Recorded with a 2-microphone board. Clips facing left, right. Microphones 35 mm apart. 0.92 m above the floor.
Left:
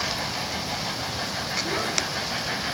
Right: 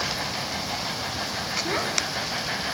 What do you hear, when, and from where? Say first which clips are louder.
1.6 s a child speaking: right 1 dB; 20° right (ahead or behind), 1.5 m